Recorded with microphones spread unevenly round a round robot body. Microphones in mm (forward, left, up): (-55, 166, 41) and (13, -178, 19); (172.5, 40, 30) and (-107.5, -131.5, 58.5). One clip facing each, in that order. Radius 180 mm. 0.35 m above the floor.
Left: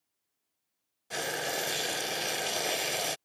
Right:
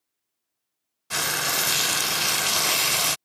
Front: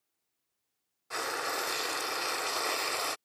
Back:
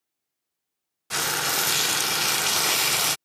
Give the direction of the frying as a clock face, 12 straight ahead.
4 o'clock.